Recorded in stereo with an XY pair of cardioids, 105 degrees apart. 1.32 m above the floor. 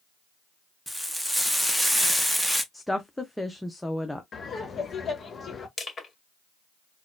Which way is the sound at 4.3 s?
40° left.